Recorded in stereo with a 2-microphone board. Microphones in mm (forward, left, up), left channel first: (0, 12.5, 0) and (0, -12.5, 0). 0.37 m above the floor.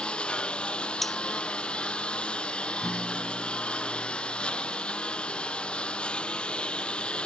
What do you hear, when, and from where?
0.0 s a lawn mower: 50° left (ahead or behind)
1.0 s cutlery clinking: 5° left (ahead or behind)
2.8 s a guitar: 5° left (ahead or behind)